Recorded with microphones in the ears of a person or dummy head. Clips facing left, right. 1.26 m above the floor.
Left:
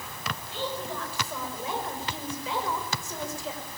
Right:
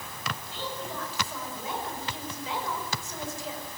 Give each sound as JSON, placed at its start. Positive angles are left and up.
{"t": 0.5, "sound": "a woman speaking", "side_deg": 50, "distance_m": 5.5}